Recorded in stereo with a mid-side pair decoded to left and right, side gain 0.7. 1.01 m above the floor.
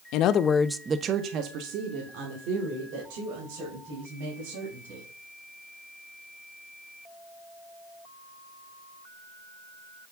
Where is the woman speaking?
65° left, 1.0 m; by 5.1 s 75° right, 7 m.